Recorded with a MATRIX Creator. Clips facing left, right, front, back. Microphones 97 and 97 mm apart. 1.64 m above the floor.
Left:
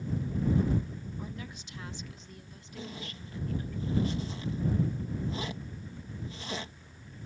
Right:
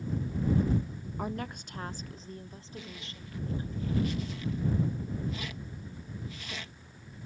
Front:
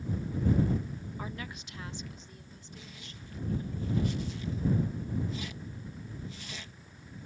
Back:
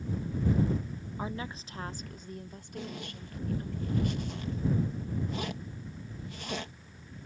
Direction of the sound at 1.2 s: 110° right.